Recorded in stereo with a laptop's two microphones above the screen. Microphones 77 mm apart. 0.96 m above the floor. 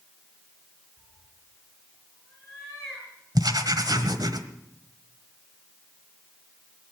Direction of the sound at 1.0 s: 15° left (ahead or behind).